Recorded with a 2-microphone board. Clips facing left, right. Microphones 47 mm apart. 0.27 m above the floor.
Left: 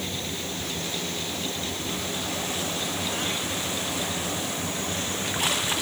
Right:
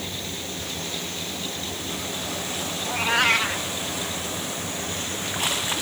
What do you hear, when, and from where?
2.9 s a cat meowing: 85° right